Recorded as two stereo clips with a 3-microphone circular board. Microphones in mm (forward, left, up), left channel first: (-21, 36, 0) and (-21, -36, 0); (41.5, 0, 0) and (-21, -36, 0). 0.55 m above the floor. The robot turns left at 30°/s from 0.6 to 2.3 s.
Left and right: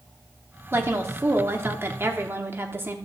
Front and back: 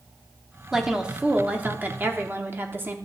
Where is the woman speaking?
70° right, 1.0 m; by 3.0 s 120° right, 1.0 m.